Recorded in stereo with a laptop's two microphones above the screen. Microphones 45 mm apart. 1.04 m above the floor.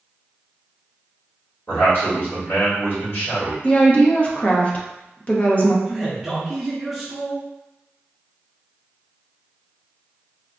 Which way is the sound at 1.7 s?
50° left (ahead or behind).